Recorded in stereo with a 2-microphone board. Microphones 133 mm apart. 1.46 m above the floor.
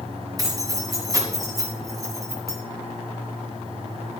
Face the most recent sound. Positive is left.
turn(degrees=-25)  # may be behind; listen again after turning